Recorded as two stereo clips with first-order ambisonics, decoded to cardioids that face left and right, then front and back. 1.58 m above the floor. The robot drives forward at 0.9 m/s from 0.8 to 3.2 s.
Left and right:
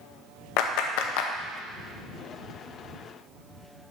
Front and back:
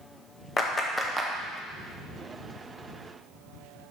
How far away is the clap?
About 0.7 m.